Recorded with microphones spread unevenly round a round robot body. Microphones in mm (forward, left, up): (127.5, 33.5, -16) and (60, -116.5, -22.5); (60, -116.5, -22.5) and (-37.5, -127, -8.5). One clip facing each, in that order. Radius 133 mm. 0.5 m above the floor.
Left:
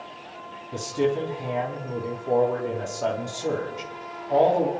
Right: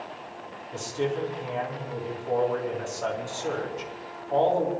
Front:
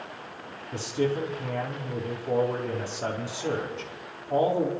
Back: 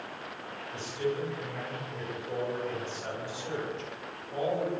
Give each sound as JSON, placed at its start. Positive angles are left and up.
{"t": 0.7, "sound": "a man speaking", "azimuth_deg": 20, "distance_m": 4.5}